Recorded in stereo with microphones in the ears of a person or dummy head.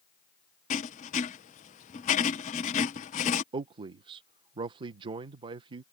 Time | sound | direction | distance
0.7 | writing | 35° left (ahead or behind) | ?
3.5 | a man speaking | 30° right (ahead or behind) | ?